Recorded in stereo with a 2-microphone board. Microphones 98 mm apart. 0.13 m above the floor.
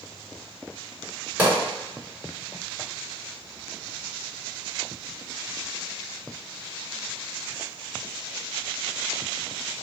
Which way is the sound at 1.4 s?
15° right (ahead or behind).